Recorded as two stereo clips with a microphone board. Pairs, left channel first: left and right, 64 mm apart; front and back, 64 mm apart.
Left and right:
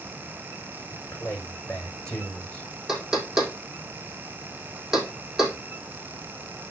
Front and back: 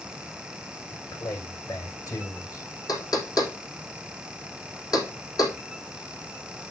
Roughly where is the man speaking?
Ahead.